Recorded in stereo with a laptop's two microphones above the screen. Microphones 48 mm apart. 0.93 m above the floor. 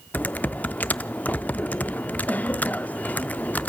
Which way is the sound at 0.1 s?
35° left (ahead or behind).